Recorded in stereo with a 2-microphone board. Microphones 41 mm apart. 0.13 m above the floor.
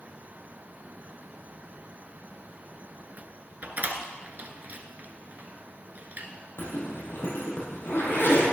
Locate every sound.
3.6 s a door slam: 45° right (ahead or behind), 1.0 m
6.6 s a zipper: 70° left (ahead or behind), 4 m